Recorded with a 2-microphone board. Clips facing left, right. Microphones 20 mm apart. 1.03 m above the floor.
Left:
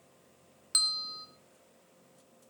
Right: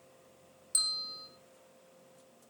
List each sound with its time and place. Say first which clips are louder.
0.7 s a bell: left 4 dB; 35° left (ahead or behind), 2 m